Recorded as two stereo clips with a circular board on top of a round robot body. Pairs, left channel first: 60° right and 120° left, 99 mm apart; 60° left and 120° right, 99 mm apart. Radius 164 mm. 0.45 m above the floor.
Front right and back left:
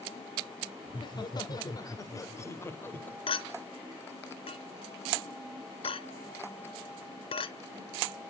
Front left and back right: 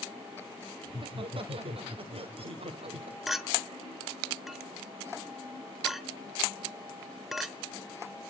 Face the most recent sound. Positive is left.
turn(degrees=-30)